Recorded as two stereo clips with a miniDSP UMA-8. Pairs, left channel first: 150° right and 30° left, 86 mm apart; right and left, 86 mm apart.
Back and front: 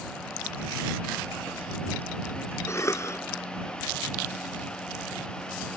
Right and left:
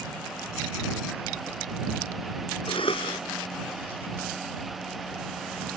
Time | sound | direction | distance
2.7 | a cough | 95° right | ?